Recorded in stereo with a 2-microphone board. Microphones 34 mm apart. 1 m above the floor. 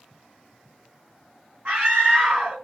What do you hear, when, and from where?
1.6 s a scream: 50° right (ahead or behind), 1.7 m